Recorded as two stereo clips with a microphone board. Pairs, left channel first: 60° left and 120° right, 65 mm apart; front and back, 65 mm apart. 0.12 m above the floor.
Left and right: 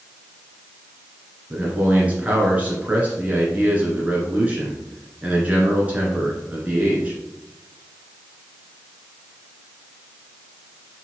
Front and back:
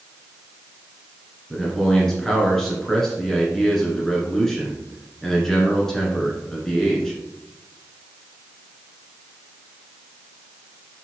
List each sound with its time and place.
1.5 s a man speaking: 75° right, 1.8 m